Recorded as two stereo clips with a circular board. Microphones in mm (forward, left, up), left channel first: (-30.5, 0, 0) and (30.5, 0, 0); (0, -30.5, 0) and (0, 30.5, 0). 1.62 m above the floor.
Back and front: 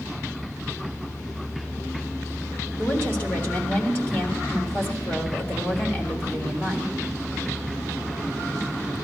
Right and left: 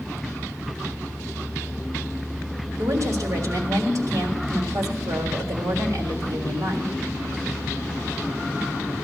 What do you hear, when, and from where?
2.8 s a woman speaking: 125° left, 3.5 m